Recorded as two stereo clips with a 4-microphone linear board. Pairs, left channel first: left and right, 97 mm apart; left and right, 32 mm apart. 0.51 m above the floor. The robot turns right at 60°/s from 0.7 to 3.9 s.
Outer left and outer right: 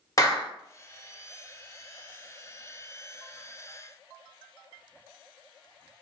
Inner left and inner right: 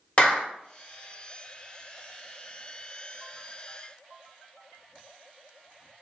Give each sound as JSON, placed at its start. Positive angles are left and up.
{"t": 0.2, "sound": "a clap", "side_deg": 35, "distance_m": 0.9}